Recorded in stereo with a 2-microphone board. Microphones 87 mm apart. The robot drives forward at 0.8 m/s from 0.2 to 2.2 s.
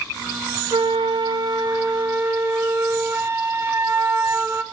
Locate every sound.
0.7 s a flute: 75° right (ahead or behind), 0.7 m; by 4.6 s 35° right (ahead or behind), 1.2 m